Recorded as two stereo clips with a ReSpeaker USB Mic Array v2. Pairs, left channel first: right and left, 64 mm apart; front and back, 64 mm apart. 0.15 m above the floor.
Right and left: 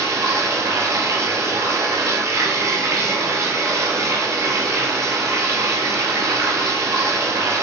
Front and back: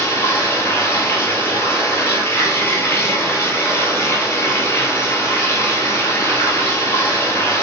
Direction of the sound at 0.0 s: 50° left.